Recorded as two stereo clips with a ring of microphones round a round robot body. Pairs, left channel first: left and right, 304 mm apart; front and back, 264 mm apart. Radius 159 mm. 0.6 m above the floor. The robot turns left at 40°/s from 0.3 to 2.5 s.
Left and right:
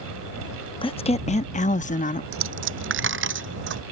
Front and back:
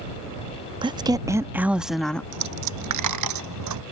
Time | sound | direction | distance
0.8 | a woman speaking | 135° left | ?
2.3 | a dropped coin | 135° right | ?